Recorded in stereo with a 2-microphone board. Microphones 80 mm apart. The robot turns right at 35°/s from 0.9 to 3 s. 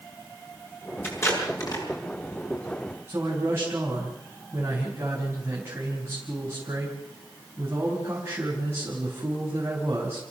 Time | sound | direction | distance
1.0 | tape being pulled | 25° left (ahead or behind) | 6 m
3.1 | a man speaking | 30° right (ahead or behind) | 4.5 m